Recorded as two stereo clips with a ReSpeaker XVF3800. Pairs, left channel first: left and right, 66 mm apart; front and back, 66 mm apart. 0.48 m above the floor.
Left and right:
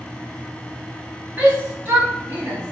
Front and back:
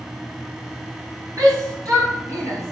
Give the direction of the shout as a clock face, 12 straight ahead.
5 o'clock.